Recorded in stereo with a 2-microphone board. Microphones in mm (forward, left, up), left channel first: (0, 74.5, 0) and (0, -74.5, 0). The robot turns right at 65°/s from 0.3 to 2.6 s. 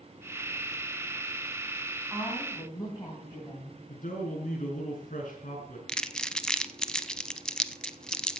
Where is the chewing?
I don't hear chewing.